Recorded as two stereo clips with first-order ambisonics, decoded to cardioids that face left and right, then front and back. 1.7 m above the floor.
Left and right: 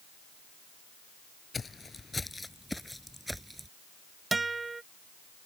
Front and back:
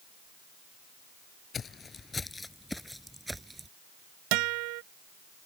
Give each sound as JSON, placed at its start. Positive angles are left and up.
{"t": 1.5, "sound": "footsteps", "azimuth_deg": 35}
{"t": 4.3, "sound": "a guitar", "azimuth_deg": -170}